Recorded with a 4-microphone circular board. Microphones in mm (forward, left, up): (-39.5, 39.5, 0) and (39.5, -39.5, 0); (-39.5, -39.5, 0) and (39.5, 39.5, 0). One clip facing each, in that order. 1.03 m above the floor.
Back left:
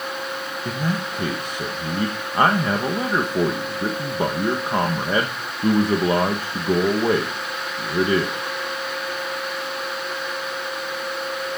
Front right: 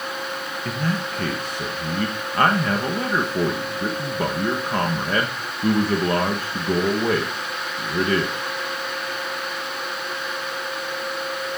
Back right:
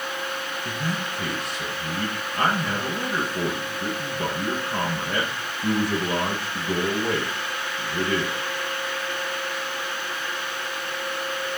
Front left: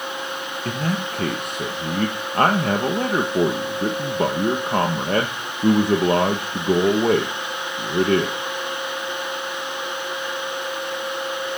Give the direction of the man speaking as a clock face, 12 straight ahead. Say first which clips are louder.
Even, front left 6 dB; 10 o'clock.